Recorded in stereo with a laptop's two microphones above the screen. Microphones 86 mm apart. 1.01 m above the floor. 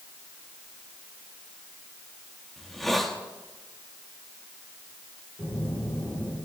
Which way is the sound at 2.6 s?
5° left (ahead or behind).